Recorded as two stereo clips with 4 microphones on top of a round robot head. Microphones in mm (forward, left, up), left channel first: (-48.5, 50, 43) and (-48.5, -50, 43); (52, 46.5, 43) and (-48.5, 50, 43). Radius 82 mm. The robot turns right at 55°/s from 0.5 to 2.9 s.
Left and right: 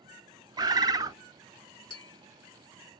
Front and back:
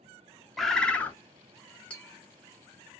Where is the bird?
90° right, 0.6 m; by 1.2 s 60° right, 0.6 m.